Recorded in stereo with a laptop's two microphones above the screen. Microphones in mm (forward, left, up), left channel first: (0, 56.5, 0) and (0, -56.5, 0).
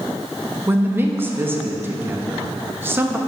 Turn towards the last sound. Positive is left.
turn(degrees=-20)  # may be behind; listen again after turning